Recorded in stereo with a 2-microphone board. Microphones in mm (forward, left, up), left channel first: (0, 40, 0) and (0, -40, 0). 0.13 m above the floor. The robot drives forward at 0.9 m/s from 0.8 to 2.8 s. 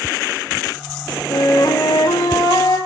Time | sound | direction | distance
1.3 | a flute | 55° left (ahead or behind) | 3 m